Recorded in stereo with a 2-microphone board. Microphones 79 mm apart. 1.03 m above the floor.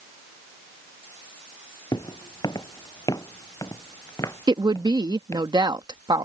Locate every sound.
1.9 s footsteps: 65° left (ahead or behind); by 5.5 s 40° left (ahead or behind)
4.5 s a woman speaking: 65° right (ahead or behind)